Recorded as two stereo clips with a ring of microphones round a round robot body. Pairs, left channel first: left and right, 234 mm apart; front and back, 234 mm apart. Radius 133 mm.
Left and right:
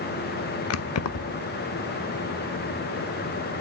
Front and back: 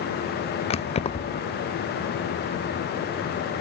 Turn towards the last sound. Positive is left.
turn(degrees=65)